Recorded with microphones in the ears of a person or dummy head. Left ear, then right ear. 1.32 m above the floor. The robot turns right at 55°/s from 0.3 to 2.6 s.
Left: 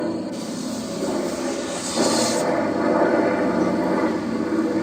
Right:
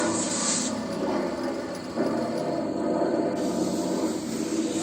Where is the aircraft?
65° right; by 4.8 s 60° left.